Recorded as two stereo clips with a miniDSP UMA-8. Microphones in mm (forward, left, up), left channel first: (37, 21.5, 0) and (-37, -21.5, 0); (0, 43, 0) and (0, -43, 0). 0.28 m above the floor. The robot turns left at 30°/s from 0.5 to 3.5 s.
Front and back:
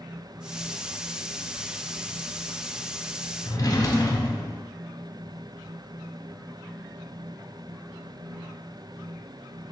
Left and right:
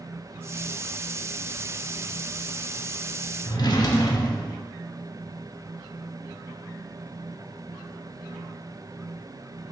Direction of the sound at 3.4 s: 70° left.